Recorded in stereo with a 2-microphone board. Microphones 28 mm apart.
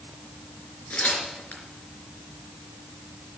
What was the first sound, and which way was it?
Tearing paper, 70° left (ahead or behind).